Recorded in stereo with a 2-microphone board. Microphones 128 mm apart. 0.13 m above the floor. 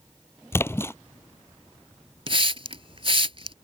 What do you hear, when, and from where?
0.5 s a splash: 20° left (ahead or behind)
2.3 s a hiss: 45° right (ahead or behind)